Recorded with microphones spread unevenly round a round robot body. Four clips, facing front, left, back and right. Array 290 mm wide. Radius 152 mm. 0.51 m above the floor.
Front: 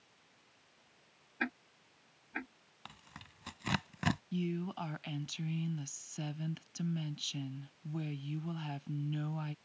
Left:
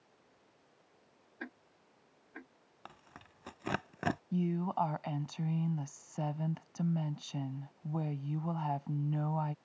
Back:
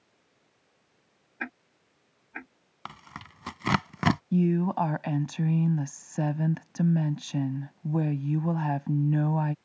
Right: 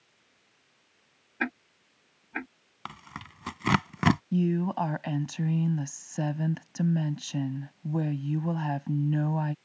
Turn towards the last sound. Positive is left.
turn(degrees=-155)